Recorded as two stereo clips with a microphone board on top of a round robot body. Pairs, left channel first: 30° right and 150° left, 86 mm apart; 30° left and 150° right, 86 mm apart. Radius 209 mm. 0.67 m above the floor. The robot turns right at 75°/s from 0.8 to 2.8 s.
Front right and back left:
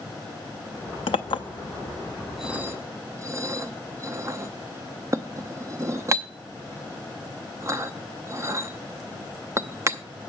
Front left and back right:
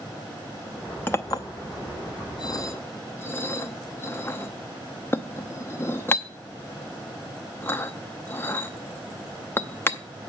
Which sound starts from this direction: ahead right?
A clink, at 1.1 s.